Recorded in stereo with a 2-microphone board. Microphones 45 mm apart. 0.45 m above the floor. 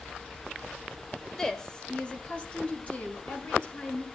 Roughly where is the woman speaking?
Centre.